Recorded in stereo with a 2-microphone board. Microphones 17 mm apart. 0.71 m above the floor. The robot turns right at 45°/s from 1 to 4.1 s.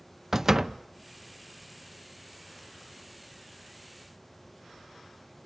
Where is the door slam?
30° right (ahead or behind), 0.6 m.